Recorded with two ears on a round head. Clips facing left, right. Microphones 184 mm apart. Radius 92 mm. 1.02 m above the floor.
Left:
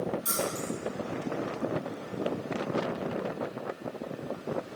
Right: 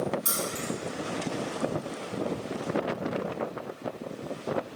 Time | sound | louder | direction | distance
0.2 | keys jangling | left 1 dB | 70° right (ahead or behind) | 0.9 m